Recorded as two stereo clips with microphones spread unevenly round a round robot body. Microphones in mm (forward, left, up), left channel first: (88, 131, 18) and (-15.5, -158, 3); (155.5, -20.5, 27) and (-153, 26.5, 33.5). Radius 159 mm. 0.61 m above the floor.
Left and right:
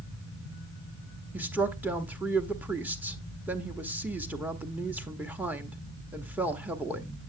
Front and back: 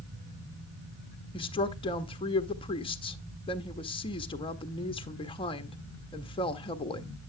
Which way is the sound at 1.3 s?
45° right.